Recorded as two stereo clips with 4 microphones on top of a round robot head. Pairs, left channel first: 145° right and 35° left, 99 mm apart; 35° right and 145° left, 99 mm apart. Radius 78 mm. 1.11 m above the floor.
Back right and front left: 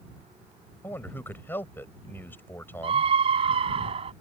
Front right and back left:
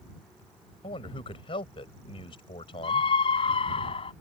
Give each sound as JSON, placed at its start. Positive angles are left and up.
{"t": 0.8, "sound": "a man speaking", "azimuth_deg": -75}
{"t": 2.8, "sound": "a scream", "azimuth_deg": 0}